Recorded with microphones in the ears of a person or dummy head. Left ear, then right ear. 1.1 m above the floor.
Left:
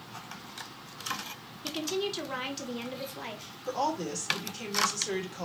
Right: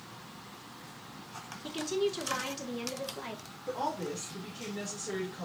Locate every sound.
1.6 s a woman speaking: 10° left (ahead or behind), 1.2 m
3.7 s a woman speaking: 85° left, 3 m